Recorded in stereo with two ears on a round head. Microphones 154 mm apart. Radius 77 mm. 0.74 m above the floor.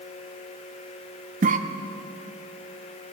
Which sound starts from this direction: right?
A cough, at 1.4 s.